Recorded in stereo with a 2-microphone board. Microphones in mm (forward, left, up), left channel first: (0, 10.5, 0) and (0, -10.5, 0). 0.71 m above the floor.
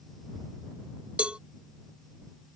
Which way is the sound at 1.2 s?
85° right.